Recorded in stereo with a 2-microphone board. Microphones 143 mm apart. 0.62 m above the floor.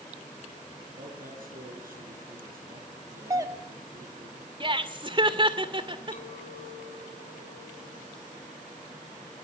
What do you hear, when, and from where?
0.9 s a man speaking: 85° right, 8 m
3.3 s a doorbell: 25° right (ahead or behind), 1.1 m
4.6 s laughter: 35° right (ahead or behind), 2.5 m
6.1 s a clink: 55° left (ahead or behind), 4.5 m